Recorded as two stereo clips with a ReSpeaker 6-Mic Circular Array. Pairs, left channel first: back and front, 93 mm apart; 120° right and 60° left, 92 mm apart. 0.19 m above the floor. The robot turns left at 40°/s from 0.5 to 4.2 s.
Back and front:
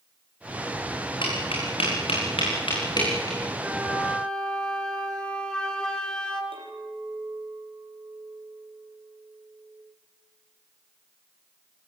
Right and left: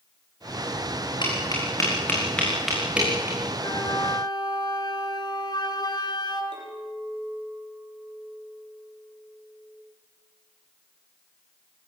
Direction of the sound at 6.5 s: 30° left.